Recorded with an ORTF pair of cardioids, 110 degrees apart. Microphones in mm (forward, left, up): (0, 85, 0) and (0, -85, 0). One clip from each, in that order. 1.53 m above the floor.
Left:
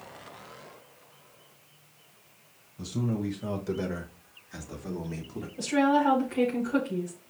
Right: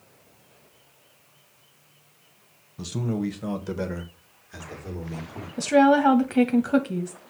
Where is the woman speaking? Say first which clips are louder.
Right 6 dB; 60° right, 0.9 m.